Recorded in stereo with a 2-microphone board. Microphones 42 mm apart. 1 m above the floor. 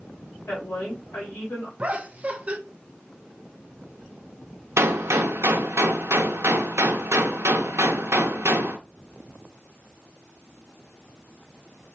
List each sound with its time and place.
0.5 s a woman speaking: 75° left (ahead or behind), 3.5 m
1.8 s laughter: 35° right (ahead or behind), 0.8 m
4.8 s a gunshot: 85° right, 0.7 m